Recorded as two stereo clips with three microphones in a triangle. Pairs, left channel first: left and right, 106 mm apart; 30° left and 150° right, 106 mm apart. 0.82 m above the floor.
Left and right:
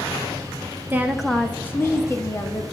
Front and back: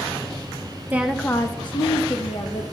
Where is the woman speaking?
115° right, 0.6 m; by 2.6 s 30° left, 1.7 m.